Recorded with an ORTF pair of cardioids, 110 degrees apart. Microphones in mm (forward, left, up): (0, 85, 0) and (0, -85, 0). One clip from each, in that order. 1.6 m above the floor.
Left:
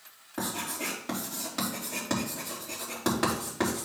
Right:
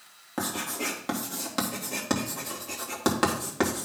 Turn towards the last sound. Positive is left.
turn(degrees=-35)